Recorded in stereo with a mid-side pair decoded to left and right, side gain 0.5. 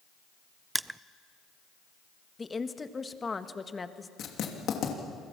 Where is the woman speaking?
25° left, 1.5 m.